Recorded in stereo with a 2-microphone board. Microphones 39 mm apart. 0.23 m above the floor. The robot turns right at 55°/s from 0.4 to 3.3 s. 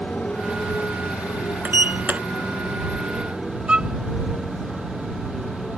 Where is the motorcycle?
30° left (ahead or behind); by 5.8 s 5° left (ahead or behind).